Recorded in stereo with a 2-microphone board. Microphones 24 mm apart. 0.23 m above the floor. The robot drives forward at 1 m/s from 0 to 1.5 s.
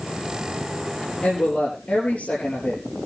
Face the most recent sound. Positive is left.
turn(degrees=70)  # may be behind; listen again after turning